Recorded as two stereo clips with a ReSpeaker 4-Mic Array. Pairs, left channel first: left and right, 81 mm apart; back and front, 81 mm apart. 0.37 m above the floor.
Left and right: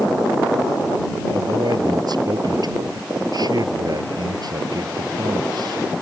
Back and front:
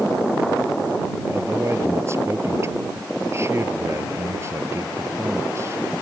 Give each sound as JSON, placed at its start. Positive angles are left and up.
{"t": 1.3, "sound": "a man speaking", "azimuth_deg": -55}